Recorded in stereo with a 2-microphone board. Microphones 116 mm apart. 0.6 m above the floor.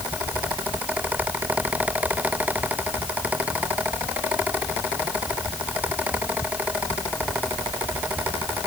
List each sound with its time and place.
Only background noise.